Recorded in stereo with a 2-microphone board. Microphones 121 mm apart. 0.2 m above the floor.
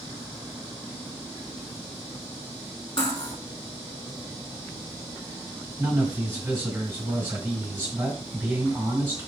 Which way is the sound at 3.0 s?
45° left (ahead or behind).